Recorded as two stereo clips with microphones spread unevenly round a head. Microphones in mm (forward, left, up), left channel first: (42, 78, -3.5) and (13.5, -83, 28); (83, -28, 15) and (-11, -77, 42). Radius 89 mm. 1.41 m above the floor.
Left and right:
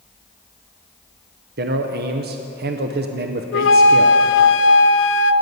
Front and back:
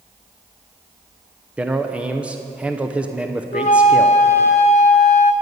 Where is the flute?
75° left, 0.5 m.